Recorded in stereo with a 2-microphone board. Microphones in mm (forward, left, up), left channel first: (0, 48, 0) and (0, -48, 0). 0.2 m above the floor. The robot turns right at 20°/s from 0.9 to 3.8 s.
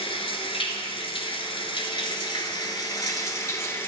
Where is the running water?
95° left, 1.1 m; by 3.9 s 155° left, 1.1 m.